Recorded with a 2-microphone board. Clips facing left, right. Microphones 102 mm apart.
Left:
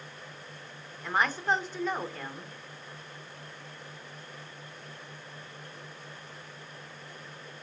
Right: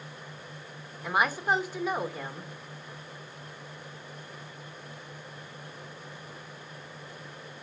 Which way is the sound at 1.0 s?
10° right (ahead or behind).